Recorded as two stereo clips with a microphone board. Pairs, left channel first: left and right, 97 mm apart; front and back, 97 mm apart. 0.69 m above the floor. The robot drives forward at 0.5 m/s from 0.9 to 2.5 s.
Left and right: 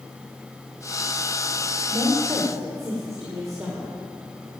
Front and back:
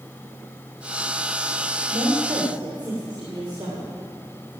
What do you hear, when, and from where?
1.9 s a woman speaking: 140° right, 2 m; by 4.0 s 145° right, 2.5 m